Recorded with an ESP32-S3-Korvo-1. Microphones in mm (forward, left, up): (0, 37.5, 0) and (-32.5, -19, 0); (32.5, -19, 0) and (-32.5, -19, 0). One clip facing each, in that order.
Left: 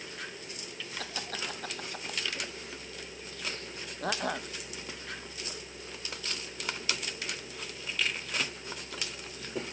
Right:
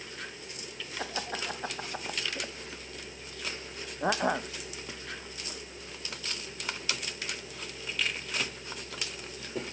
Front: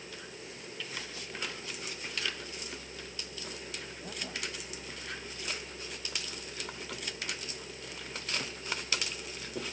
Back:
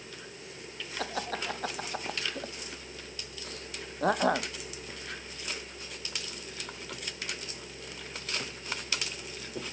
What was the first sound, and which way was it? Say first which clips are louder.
Laughter: right 4 dB, back 11 dB; 170° left.